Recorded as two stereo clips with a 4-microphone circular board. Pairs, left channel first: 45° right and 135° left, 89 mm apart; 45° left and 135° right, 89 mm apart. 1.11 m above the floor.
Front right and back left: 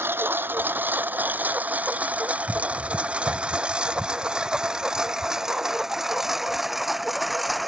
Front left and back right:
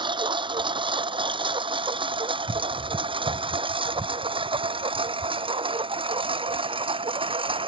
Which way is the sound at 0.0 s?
160° right.